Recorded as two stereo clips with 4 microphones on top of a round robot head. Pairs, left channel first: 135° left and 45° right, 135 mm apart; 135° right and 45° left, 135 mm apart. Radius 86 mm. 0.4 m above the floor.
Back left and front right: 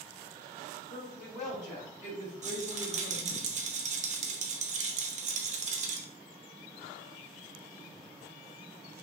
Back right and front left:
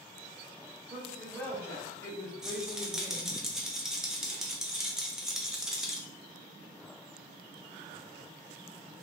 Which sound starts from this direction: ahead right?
A rattle, at 2.4 s.